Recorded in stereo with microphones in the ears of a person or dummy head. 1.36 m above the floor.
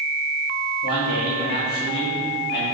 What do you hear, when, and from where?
0.8 s a man speaking: 50° left (ahead or behind), 3 m